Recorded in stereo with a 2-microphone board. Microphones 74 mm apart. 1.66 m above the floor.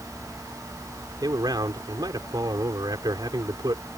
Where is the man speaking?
60° right (ahead or behind).